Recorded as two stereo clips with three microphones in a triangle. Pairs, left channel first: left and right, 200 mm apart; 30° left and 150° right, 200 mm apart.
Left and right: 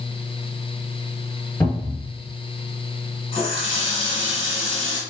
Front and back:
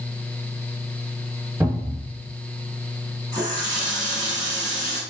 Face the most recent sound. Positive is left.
turn(degrees=150)